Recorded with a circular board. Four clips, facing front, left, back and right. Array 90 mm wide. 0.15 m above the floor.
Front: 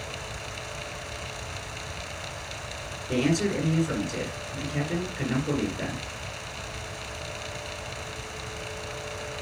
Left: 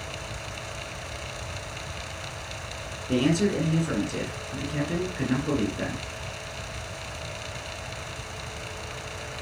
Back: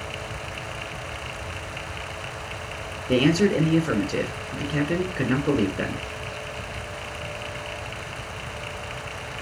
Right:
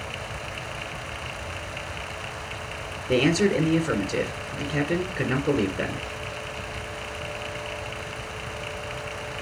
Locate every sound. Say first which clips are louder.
3.1 s a man speaking: right 3 dB, back 6 dB; 150° right, 1.9 m